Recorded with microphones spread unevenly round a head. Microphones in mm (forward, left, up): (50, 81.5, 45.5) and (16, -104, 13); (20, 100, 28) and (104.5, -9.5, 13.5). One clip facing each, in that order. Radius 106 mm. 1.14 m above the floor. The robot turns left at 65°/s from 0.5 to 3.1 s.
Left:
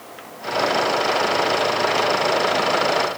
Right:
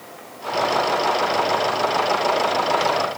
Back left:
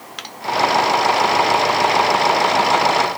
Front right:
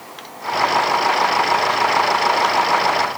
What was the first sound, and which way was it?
Only background noise.